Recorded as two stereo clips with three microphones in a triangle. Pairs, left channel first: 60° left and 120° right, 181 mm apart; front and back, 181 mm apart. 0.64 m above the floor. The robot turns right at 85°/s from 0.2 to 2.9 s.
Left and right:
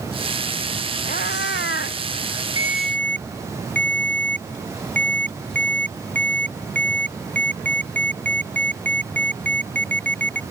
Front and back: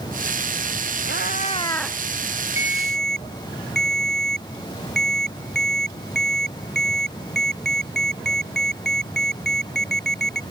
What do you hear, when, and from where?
1.1 s a cat meowing: 15° left; by 2.0 s 100° left
2.6 s a ringtone: 50° right; by 10.4 s 20° right